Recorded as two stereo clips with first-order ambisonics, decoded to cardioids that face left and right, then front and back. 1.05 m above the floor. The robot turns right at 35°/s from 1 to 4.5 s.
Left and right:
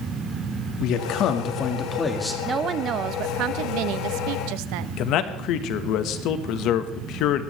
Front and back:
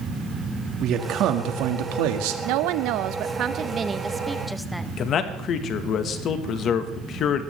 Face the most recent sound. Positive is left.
turn(degrees=55)